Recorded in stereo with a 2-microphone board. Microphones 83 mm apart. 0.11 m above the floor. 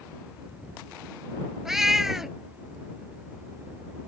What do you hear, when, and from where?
1.6 s a cat meowing: 5° right (ahead or behind)